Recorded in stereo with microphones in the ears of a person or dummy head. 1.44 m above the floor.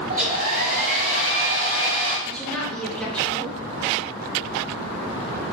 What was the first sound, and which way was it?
A hair dryer, 40° right (ahead or behind).